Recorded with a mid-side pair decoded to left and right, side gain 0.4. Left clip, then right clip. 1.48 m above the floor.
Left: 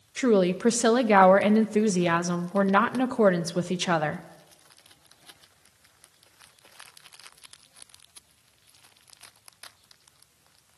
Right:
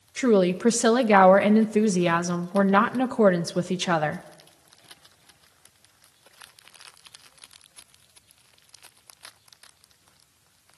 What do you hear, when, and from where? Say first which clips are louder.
0.2 s a woman speaking: right 2 dB; 5° right, 0.6 m